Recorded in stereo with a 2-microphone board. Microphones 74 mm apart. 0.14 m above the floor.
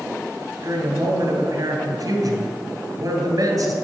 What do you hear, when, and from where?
0.6 s a woman speaking: 50° right (ahead or behind), 2.5 m